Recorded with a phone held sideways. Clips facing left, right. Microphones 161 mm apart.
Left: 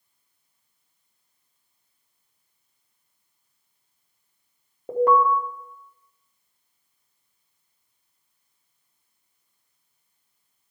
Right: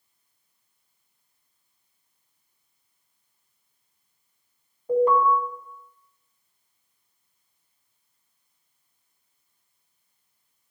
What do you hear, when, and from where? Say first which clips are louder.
4.9 s an alarm: even; 70° left (ahead or behind), 1.9 m